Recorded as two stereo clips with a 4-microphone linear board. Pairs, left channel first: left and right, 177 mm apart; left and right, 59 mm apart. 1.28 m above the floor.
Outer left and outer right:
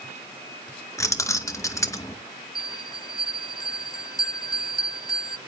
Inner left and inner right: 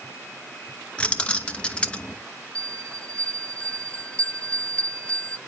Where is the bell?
20° left (ahead or behind), 1.6 m.